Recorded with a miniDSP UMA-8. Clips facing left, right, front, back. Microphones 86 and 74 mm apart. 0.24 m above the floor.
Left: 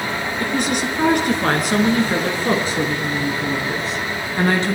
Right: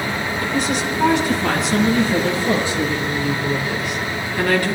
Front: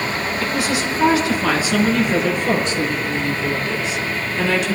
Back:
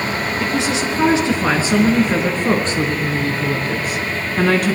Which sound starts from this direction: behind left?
A woman speaking, at 0.4 s.